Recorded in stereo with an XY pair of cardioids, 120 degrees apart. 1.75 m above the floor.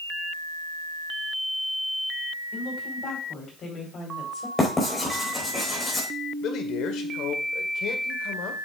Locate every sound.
2.5 s a woman speaking: 50° left, 5 m; by 4.5 s 40° left, 4 m
4.6 s writing: 20° left, 4.5 m
6.4 s a man speaking: 70° left, 1.5 m